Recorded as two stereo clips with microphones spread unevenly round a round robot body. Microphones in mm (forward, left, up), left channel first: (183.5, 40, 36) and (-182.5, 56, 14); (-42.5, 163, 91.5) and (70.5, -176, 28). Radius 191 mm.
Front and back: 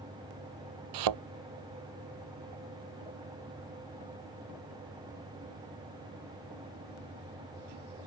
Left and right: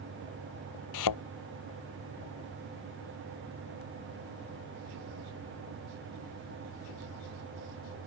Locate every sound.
0.9 s a thud: 145° left